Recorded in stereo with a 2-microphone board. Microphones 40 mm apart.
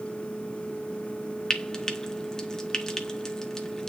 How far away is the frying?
About 1.1 m.